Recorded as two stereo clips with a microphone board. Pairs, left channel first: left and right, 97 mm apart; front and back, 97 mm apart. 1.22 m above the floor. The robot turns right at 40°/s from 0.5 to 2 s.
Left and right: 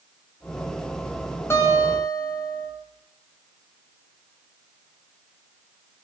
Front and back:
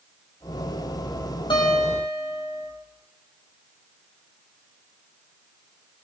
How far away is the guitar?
About 7 m.